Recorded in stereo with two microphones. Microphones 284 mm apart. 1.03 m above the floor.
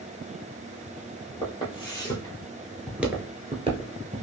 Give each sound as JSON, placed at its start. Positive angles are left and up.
{"t": 1.4, "sound": "footsteps", "side_deg": 15, "distance_m": 2.0}